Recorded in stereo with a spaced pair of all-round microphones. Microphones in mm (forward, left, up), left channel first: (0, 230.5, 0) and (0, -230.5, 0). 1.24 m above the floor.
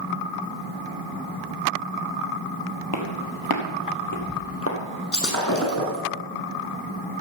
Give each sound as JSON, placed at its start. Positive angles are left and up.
{"t": 2.9, "sound": "footsteps", "side_deg": 55, "distance_m": 2.0}
{"t": 5.1, "sound": "breaking glass", "side_deg": 40, "distance_m": 4.5}